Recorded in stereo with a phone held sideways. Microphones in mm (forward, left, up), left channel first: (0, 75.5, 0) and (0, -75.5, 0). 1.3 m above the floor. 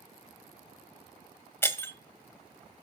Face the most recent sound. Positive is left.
turn(degrees=15)  # may be behind; listen again after turning